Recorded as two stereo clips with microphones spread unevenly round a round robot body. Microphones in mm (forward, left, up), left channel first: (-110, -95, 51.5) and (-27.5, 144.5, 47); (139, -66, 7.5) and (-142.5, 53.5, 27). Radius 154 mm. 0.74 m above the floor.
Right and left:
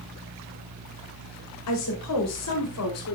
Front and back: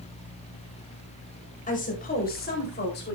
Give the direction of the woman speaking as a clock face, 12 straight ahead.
3 o'clock.